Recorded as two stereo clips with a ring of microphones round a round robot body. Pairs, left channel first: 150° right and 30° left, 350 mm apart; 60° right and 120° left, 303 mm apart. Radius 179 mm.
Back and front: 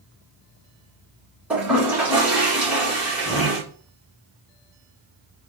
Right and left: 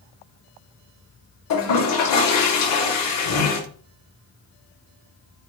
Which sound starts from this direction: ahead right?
A toilet flushing, at 1.5 s.